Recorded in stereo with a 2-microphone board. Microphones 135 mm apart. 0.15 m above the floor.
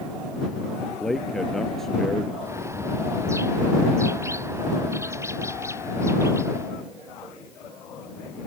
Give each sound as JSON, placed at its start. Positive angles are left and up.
{"t": 1.0, "sound": "a man speaking", "side_deg": 0}
{"t": 2.4, "sound": "a bird", "side_deg": -20}